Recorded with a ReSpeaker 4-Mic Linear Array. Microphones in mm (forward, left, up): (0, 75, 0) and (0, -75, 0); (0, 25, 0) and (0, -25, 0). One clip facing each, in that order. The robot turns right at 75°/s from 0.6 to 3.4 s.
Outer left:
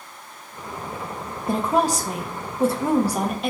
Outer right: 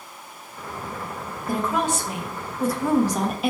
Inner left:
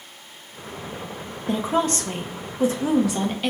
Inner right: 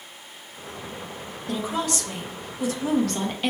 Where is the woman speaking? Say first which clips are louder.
Outer left 3 dB, inner left 5 dB; 45° left, 0.5 m; by 3.5 s 175° right, 0.5 m.